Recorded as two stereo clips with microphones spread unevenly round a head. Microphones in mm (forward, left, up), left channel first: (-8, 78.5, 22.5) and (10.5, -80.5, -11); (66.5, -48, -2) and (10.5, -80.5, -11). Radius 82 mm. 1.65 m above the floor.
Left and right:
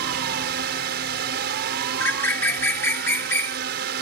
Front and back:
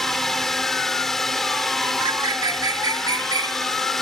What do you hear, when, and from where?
0.0 s a drone: 55° right
2.0 s a bird: 170° left